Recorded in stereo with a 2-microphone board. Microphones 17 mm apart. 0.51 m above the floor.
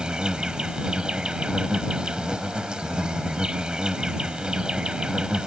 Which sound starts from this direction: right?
An insect, at 0.0 s.